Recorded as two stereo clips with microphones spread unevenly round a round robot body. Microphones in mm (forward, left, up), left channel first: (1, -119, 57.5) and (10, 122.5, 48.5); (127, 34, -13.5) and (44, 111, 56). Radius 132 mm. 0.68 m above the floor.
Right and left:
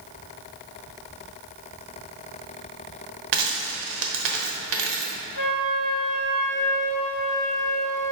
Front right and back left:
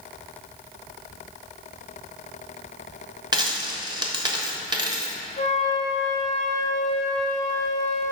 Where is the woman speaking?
No woman speaking in this recording.